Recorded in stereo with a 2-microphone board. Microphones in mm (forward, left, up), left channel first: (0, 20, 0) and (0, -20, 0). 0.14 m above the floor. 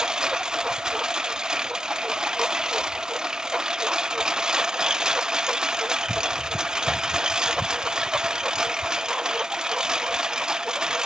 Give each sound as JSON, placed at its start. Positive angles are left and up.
{"t": 0.0, "sound": "a lawn mower", "side_deg": -15}